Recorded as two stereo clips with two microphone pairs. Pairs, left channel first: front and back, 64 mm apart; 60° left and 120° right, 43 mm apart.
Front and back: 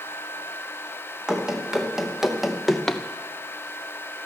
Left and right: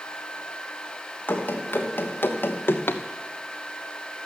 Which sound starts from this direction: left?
Running footsteps, at 1.3 s.